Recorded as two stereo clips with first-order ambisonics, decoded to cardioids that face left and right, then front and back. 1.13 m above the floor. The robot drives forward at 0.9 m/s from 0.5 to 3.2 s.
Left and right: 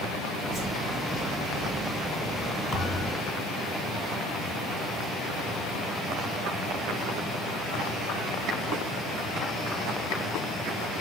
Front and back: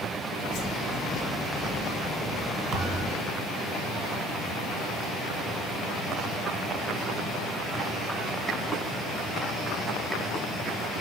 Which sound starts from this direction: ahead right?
A whoosh, at 0.5 s.